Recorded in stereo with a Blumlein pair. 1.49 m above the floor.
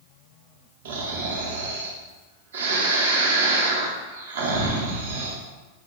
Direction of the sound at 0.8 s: 60° right.